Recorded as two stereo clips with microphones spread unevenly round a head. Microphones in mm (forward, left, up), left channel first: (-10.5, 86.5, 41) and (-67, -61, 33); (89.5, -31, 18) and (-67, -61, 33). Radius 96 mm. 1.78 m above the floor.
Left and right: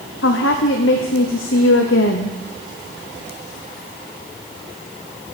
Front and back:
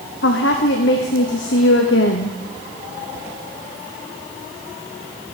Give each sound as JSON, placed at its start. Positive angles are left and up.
{"t": 0.2, "sound": "a woman speaking", "azimuth_deg": 45, "distance_m": 1.1}